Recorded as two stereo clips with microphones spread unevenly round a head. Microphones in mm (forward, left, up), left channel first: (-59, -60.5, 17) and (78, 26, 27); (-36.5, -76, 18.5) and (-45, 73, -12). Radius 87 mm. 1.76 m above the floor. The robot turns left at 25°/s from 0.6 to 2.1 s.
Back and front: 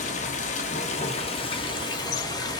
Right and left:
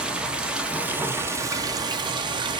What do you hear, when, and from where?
0.0 s running water: 170° right, 0.8 m; by 2.6 s 150° left, 0.8 m